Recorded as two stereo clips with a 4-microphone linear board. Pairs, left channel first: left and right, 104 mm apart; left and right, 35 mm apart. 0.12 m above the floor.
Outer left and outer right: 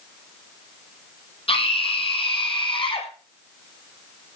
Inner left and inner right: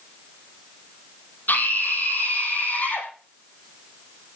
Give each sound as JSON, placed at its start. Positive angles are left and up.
{"t": 1.5, "sound": "a scream", "side_deg": 60, "distance_m": 5.0}